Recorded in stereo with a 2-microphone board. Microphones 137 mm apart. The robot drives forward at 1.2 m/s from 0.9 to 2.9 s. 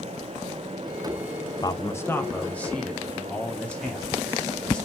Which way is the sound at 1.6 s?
30° left (ahead or behind).